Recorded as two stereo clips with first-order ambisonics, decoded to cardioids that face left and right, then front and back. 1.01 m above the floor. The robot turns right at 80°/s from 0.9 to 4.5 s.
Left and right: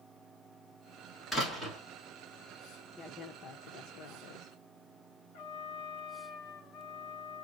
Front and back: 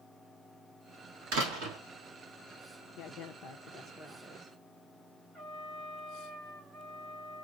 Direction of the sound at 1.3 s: 170° left.